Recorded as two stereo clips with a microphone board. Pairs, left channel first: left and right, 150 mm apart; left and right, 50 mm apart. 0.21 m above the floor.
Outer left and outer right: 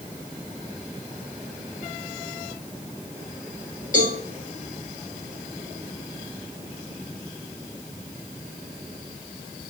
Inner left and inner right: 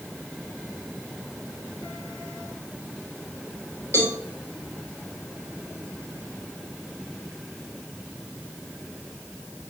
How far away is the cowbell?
About 5.5 m.